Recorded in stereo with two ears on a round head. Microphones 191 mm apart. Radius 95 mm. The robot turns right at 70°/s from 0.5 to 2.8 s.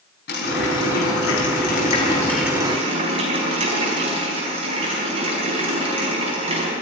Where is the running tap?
45° left, 4.5 m; by 6.7 s 150° right, 4.5 m.